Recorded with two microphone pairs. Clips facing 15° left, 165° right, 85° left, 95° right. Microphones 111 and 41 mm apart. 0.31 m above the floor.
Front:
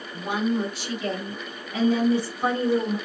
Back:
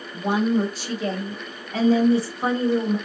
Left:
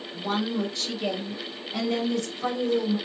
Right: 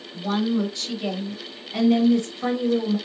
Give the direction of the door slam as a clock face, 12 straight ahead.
No door slam in this recording.